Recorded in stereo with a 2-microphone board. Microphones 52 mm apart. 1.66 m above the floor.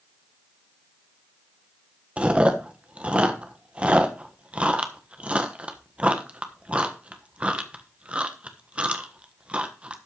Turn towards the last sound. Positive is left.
turn(degrees=-25)  # may be behind; listen again after turning